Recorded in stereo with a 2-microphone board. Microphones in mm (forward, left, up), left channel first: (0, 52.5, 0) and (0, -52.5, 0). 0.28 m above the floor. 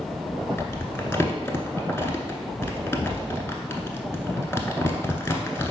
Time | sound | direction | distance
0.6 | crumpling | 25° left (ahead or behind) | 0.7 m